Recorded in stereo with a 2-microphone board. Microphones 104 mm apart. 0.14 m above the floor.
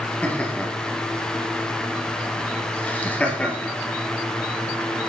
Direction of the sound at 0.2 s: 10° left (ahead or behind).